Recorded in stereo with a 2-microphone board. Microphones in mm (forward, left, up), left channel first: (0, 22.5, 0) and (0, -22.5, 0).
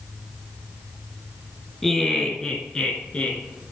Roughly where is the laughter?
Centre.